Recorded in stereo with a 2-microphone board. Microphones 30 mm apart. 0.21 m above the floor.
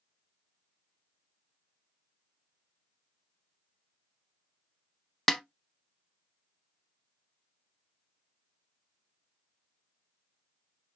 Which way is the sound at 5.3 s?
15° left (ahead or behind).